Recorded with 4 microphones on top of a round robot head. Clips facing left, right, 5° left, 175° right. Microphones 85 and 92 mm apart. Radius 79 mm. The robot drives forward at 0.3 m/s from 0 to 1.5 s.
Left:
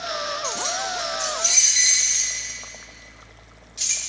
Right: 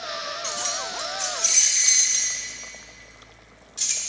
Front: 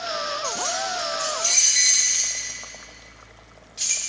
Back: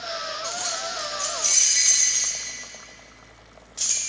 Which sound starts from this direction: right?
Keys jangling, at 0.4 s.